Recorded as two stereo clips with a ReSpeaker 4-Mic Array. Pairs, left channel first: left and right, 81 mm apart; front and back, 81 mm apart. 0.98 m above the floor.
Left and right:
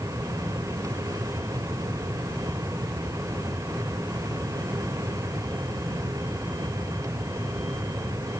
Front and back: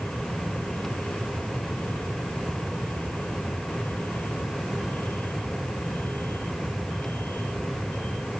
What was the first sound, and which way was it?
Only background noise.